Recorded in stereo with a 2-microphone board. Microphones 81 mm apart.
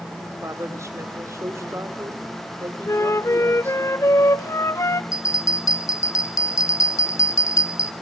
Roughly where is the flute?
Left.